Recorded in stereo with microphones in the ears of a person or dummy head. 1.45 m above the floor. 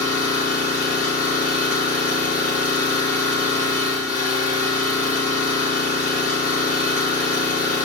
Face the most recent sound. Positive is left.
turn(degrees=55)  # may be behind; listen again after turning